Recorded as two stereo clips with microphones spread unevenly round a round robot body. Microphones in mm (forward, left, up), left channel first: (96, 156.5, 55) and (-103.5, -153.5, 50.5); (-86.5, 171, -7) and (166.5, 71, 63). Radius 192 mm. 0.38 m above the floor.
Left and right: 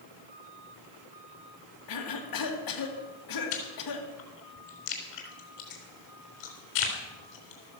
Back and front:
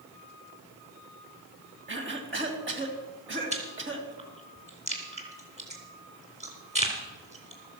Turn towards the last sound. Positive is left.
turn(degrees=45)